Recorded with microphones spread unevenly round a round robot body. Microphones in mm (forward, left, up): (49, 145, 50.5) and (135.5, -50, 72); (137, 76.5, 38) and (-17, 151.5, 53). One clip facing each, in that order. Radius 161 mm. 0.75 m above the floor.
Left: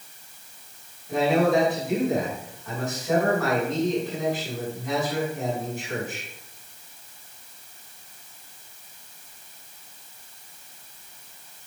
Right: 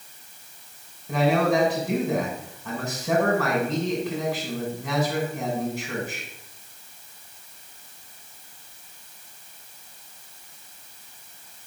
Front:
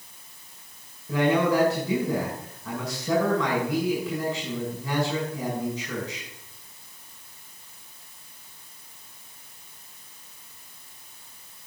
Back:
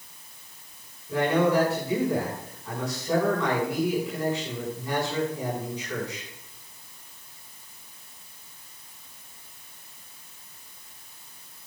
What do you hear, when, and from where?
1.1 s a man speaking: 50° right, 6.5 m